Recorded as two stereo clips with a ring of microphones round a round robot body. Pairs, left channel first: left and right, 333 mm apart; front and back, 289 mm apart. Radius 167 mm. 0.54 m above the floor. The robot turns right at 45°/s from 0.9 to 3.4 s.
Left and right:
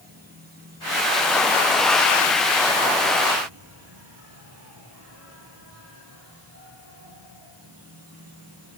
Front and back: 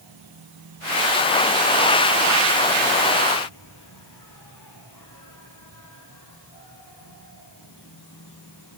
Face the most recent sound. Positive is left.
turn(degrees=-40)